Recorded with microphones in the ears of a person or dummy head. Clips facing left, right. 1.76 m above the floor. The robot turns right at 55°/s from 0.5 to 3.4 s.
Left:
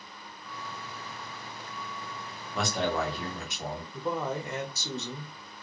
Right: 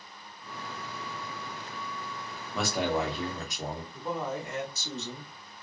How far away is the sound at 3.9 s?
About 0.8 m.